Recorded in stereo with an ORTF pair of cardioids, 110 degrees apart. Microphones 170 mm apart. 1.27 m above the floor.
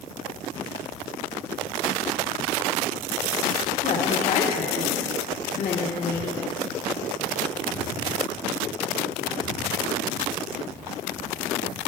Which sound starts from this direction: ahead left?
A woman speaking, at 3.8 s.